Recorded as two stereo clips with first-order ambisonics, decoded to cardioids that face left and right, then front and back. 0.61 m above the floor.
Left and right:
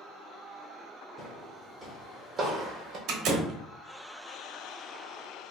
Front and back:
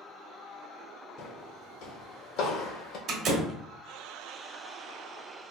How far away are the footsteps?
About 1.5 m.